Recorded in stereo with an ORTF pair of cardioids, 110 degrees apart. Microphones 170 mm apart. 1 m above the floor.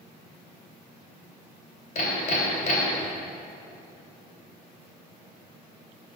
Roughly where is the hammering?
Ahead left.